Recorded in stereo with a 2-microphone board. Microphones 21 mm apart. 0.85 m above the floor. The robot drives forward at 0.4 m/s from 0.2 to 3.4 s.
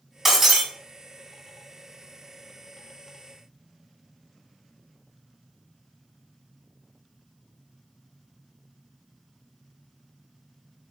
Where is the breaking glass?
5° right (ahead or behind), 1.6 m.